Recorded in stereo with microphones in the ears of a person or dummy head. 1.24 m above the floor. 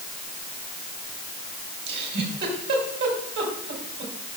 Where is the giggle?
60° right (ahead or behind), 3.5 m.